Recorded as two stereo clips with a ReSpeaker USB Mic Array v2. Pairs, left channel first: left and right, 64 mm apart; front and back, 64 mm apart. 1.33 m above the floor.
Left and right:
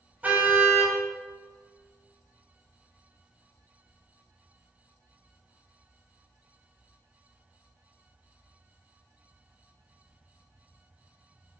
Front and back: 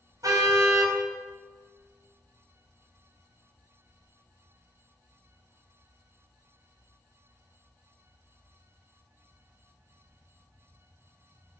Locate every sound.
0.2 s a car horn: 155° right, 4.5 m